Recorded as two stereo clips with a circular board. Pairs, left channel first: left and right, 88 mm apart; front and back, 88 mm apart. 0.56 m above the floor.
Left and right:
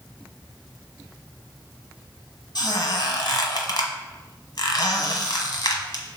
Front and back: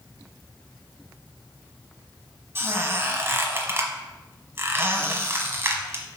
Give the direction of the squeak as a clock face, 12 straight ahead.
8 o'clock.